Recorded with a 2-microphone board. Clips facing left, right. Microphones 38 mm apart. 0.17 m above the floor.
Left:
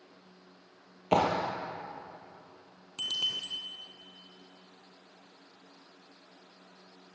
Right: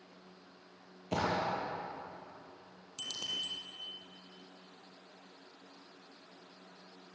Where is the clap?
50° left (ahead or behind), 3 m.